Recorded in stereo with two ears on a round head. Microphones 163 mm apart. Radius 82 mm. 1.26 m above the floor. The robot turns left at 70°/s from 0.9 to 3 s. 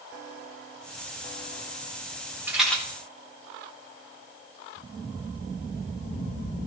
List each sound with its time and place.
2.5 s a rattle: 10° right (ahead or behind), 2.5 m; by 2.8 s 15° left (ahead or behind), 2.5 m